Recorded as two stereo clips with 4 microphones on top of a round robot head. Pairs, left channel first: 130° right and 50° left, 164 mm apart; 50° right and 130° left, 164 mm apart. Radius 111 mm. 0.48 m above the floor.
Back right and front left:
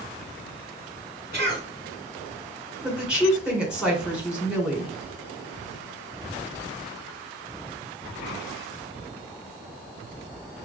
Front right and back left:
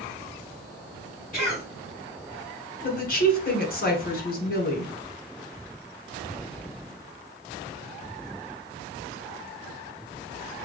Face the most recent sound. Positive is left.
turn(degrees=-35)